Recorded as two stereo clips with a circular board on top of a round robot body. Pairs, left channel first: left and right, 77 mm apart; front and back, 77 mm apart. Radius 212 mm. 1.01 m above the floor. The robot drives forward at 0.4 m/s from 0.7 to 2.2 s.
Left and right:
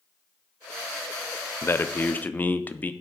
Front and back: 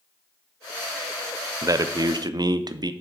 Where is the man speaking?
145° left, 0.6 m; by 2.9 s 155° left, 0.8 m.